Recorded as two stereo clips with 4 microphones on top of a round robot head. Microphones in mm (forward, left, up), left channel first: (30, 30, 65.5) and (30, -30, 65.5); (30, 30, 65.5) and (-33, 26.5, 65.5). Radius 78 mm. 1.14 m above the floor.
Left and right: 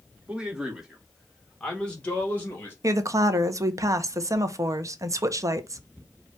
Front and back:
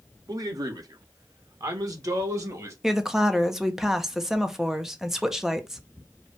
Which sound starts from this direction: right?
A woman speaking, at 2.8 s.